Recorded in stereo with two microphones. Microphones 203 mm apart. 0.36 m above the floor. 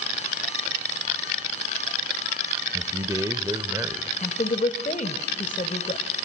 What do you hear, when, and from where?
2.7 s a man speaking: 20° right (ahead or behind), 1.0 m
4.2 s a woman speaking: 40° left (ahead or behind), 1.3 m